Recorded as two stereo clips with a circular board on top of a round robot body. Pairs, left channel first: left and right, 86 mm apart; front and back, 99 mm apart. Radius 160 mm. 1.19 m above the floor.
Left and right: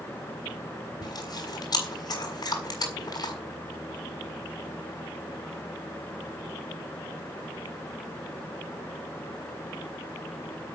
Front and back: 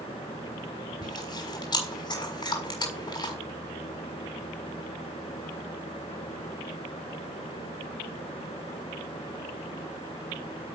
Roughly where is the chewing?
Ahead left.